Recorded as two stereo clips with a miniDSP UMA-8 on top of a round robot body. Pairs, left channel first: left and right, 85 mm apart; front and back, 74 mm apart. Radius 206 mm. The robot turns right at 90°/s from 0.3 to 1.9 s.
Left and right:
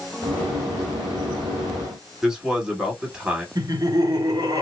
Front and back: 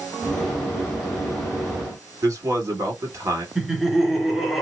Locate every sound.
2.2 s a man speaking: 165° right, 2.0 m
3.5 s laughter: 95° right, 2.0 m